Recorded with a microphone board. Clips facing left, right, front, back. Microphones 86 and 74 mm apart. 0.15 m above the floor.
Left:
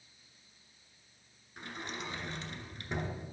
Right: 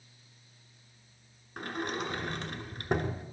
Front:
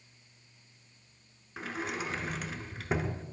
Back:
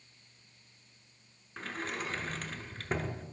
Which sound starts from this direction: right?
A sliding door, at 1.6 s.